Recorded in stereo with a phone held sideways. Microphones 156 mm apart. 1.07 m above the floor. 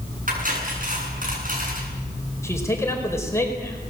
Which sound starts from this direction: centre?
A man speaking, at 2.4 s.